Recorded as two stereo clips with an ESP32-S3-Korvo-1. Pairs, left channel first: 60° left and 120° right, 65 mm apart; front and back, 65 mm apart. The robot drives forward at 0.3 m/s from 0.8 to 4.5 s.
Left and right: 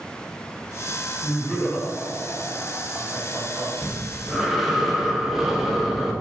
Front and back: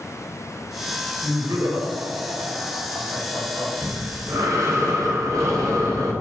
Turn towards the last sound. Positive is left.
turn(degrees=155)